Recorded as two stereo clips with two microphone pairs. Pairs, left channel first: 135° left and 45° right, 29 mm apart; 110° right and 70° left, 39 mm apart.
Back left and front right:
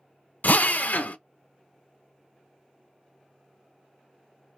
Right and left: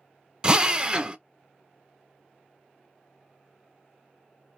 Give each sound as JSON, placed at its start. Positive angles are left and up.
{"t": 0.4, "sound": "a drill", "azimuth_deg": 135, "distance_m": 0.5}